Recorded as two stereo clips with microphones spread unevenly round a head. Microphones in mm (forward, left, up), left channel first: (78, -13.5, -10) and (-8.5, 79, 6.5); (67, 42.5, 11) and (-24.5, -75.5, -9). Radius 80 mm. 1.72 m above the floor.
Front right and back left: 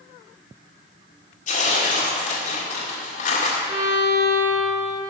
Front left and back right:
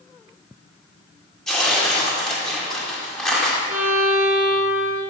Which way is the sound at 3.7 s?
155° left.